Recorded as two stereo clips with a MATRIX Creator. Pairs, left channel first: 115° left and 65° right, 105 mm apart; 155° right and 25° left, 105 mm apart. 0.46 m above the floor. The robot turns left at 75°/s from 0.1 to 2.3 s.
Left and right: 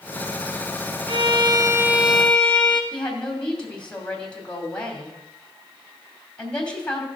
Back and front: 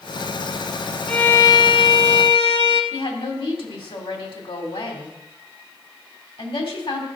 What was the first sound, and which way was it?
A violin, 75° right.